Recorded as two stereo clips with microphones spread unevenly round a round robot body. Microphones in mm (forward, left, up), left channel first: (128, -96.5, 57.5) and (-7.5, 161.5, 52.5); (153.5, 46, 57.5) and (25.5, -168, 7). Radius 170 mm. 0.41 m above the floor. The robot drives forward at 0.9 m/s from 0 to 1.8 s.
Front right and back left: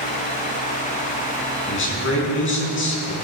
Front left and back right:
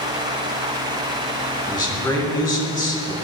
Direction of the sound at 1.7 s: 15° right.